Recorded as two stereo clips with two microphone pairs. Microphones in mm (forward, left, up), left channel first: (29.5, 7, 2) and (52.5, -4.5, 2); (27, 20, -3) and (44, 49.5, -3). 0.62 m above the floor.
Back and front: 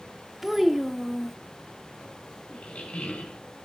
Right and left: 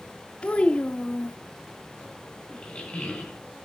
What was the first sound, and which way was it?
A child speaking, 95° right.